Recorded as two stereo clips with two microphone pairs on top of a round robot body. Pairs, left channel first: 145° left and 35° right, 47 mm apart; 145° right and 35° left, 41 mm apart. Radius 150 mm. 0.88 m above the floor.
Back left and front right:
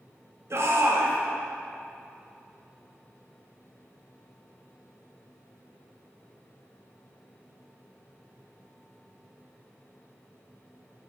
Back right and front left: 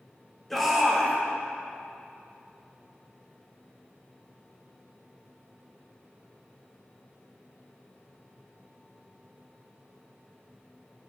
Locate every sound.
0.5 s a shout: 55° right, 1.8 m